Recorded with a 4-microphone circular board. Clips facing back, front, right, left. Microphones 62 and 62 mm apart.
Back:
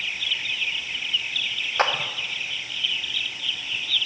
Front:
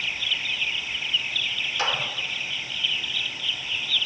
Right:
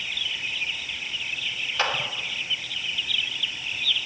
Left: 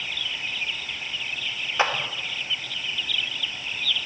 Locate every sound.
1.8 s a clap: 150° left, 0.9 m